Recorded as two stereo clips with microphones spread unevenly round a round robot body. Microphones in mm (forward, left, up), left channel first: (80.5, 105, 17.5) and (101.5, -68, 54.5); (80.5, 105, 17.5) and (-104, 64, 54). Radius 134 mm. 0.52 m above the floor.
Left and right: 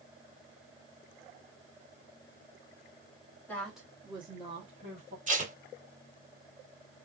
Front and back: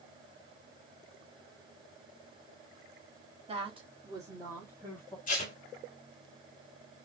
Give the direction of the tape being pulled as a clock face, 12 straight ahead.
1 o'clock.